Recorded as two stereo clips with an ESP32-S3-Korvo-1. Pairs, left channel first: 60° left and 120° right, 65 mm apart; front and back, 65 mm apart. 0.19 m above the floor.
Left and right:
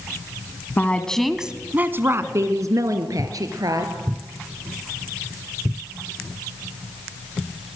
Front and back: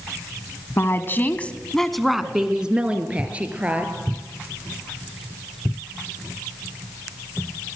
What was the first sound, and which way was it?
A woman speaking, 15° left.